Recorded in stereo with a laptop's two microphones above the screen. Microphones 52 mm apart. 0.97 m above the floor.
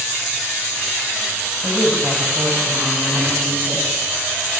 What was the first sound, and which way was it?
A woman speaking, 45° right (ahead or behind).